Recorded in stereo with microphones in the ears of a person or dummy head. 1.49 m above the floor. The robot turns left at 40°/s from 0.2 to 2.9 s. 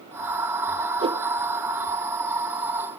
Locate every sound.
1.0 s a whoosh: 30° right (ahead or behind), 0.6 m; by 1.2 s 20° right (ahead or behind), 0.6 m